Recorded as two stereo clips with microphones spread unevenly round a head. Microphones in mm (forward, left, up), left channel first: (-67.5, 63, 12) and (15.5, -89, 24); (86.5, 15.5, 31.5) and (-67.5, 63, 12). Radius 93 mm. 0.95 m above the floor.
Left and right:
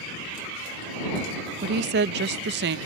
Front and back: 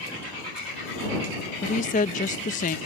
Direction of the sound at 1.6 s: 60° right.